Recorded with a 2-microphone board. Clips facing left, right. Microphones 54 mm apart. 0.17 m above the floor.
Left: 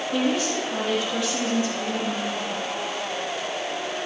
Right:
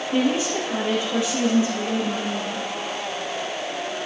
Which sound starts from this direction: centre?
A woman speaking, at 0.1 s.